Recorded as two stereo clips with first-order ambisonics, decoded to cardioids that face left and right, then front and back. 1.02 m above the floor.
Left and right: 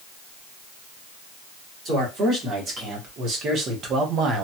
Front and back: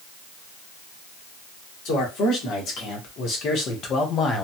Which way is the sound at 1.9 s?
35° right.